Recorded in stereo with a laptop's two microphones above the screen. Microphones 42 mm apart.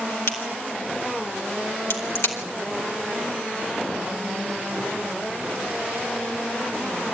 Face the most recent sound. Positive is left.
turn(degrees=80)